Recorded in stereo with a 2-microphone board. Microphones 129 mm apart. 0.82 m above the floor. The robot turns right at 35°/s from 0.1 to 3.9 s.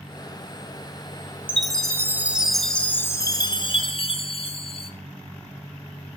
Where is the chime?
35° right, 0.8 m; by 4.9 s 50° left, 0.8 m.